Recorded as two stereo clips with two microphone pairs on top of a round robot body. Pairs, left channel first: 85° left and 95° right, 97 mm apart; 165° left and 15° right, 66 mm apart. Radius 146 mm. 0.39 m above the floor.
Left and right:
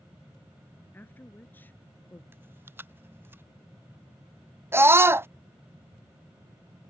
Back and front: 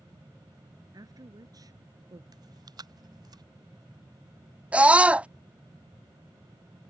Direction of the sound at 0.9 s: 15° left.